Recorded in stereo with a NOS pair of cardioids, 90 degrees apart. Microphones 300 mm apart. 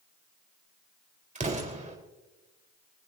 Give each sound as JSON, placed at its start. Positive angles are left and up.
{"t": 1.4, "sound": "an explosion", "azimuth_deg": -25, "distance_m": 4.0}